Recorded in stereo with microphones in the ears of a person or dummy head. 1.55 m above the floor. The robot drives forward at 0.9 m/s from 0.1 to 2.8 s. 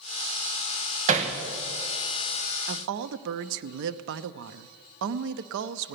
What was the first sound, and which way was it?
Hammering, 40° right (ahead or behind).